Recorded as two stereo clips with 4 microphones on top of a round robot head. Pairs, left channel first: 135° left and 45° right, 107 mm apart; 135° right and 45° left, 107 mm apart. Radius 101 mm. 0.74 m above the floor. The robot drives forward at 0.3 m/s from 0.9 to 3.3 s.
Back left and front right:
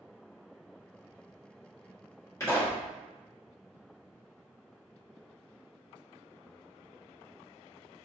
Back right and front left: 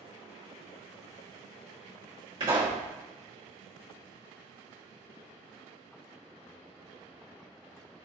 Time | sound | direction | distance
2.4 | a pop | 75° left | 1.8 m